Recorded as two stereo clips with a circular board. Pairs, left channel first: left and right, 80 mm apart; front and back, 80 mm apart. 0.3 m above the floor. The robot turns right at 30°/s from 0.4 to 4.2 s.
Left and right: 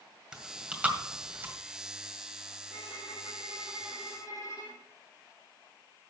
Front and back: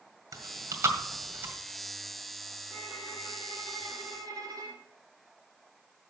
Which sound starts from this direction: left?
A violin, at 2.7 s.